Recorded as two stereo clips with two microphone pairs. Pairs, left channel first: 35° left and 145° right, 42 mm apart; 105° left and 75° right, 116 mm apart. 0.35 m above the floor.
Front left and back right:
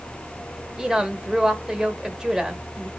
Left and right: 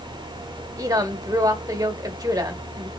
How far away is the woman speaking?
About 0.9 m.